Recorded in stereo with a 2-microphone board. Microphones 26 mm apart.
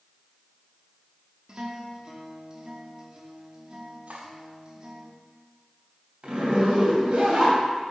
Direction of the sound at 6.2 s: 45° right (ahead or behind).